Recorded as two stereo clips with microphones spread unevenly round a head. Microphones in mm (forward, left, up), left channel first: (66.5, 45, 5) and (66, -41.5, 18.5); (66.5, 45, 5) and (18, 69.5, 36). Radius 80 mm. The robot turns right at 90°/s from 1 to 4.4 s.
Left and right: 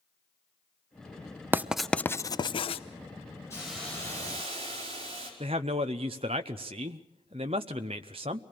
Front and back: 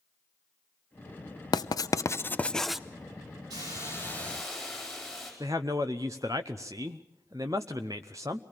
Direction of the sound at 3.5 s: 165° left.